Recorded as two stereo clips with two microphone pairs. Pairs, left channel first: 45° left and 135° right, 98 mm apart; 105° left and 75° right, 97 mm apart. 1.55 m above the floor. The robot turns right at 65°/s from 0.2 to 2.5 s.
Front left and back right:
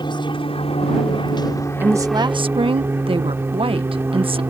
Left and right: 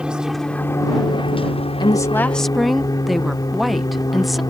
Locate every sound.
0.0 s an aircraft: 5° left; by 4.5 s 155° left
1.8 s a woman speaking: 150° left; by 4.4 s 165° right